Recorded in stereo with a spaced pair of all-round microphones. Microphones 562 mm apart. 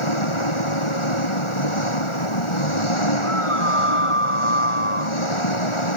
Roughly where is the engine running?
Left.